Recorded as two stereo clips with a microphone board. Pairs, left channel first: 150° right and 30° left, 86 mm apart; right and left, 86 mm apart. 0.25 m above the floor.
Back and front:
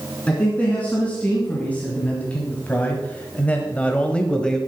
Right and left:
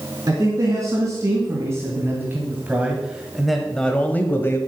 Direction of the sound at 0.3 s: 135° left.